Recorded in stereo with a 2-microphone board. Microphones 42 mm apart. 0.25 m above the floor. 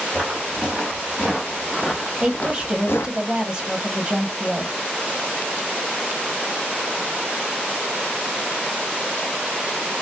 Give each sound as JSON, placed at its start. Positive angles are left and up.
{"t": 0.1, "sound": "footsteps", "side_deg": -15, "distance_m": 2.5}
{"t": 2.2, "sound": "a woman speaking", "side_deg": -20, "distance_m": 1.1}